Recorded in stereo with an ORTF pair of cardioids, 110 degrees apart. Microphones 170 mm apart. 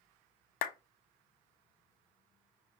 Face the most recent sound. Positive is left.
turn(degrees=60)